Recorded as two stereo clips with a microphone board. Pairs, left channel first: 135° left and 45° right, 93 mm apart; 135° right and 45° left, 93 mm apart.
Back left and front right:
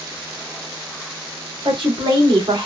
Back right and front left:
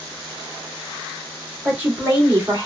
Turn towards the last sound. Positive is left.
turn(degrees=-20)